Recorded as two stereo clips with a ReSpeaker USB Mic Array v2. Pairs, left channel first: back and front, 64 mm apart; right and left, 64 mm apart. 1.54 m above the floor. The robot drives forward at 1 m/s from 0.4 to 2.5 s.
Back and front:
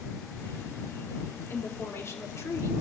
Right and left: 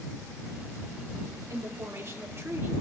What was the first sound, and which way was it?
A woman speaking, 130° left.